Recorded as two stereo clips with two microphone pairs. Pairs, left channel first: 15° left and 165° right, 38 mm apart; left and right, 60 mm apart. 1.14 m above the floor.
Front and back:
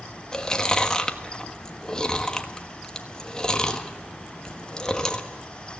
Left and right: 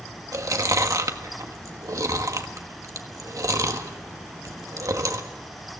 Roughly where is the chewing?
Ahead right.